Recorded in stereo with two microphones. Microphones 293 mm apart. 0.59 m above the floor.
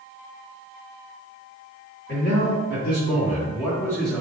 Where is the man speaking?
40° left (ahead or behind), 1.9 m; by 4.2 s 5° right (ahead or behind), 1.0 m.